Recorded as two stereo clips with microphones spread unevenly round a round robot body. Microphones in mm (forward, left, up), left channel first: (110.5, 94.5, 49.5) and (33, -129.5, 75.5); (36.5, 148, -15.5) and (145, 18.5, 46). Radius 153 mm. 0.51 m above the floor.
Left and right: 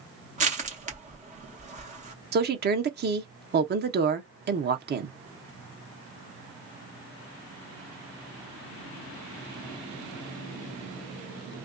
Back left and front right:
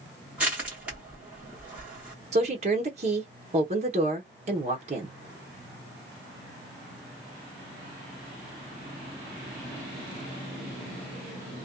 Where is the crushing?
160° right, 1.1 m.